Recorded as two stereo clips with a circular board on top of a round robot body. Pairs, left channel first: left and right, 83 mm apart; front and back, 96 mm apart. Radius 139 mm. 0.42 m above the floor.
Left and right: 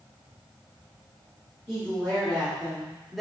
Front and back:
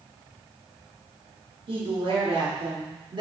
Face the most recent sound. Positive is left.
turn(degrees=180)